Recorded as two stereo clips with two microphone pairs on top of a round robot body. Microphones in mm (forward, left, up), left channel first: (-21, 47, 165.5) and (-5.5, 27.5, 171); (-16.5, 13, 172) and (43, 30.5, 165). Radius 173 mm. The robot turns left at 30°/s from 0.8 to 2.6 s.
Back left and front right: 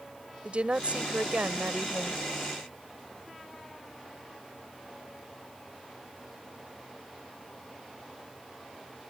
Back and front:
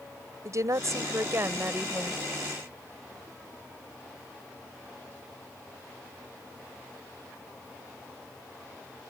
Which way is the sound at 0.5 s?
10° right.